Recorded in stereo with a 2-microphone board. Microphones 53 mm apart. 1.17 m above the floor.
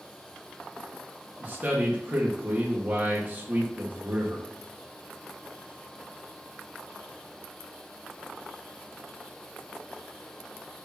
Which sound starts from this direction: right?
A man speaking, at 1.4 s.